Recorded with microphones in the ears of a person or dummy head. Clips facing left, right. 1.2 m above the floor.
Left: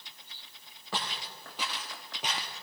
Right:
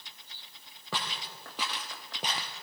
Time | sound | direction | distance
0.9 | footsteps | 60° right (ahead or behind) | 2 m